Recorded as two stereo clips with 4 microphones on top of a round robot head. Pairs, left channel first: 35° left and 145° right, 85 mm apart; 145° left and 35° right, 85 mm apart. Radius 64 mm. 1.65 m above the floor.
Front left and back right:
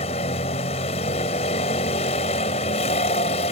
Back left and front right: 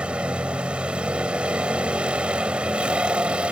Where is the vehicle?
40° left.